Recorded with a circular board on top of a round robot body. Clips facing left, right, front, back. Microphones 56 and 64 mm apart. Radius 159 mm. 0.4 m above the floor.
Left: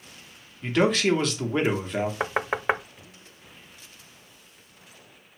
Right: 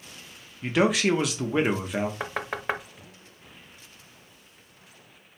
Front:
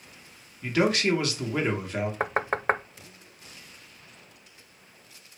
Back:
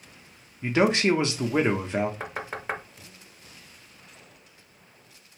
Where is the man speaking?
165° right, 1.1 m.